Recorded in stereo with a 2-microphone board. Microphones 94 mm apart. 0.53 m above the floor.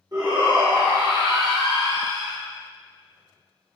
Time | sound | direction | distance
0.1 | a shout | 45° right (ahead or behind) | 1.6 m